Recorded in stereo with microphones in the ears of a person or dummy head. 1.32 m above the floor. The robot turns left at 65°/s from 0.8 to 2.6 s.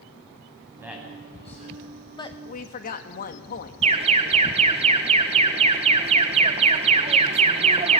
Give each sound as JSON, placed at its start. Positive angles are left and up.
{"t": 0.8, "sound": "a man speaking", "side_deg": -15, "distance_m": 9.5}
{"t": 2.2, "sound": "a woman speaking", "side_deg": 20, "distance_m": 2.0}
{"t": 3.8, "sound": "an alarm", "side_deg": -30, "distance_m": 1.6}